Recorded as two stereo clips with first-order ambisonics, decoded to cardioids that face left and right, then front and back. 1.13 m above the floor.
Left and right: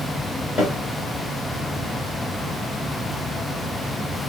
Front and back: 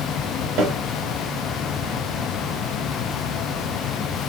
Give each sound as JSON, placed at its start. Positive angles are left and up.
{"t": 0.6, "sound": "a snare drum", "azimuth_deg": 160, "distance_m": 1.4}